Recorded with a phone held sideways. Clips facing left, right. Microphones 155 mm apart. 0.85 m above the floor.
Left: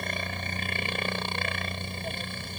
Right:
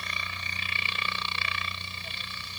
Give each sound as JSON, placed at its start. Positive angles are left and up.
{"t": 0.0, "sound": "a helicopter", "side_deg": 50}